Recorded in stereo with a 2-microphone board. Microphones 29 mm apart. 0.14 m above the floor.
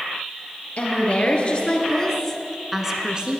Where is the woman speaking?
45° left (ahead or behind), 2.5 m; by 3.4 s 35° right (ahead or behind), 1.7 m.